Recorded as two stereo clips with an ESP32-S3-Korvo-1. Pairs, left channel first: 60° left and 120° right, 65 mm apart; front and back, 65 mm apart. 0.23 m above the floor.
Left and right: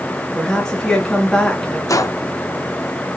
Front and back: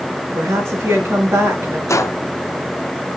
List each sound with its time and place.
0.3 s a woman speaking: 140° left, 3.5 m
1.9 s a gunshot: 35° left, 0.8 m